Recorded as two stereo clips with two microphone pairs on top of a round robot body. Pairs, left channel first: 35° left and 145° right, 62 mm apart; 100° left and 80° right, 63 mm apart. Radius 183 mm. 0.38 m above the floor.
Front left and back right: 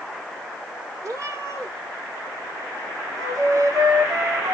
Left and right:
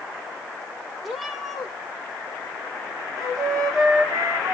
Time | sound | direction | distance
1.0 | a cat meowing | 170° right | 5.5 m
3.2 | a flute | 115° right | 7 m